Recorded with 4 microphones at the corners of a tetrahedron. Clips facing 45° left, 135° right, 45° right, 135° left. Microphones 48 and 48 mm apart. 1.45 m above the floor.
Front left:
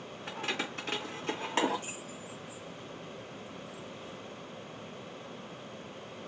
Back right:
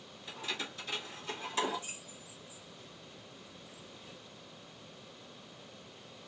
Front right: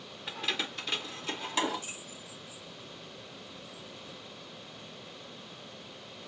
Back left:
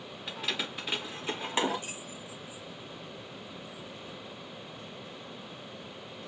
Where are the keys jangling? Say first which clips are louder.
Front left 5 dB, front right 1 dB; 35° left, 1.0 m; by 4.2 s 95° left, 2.5 m.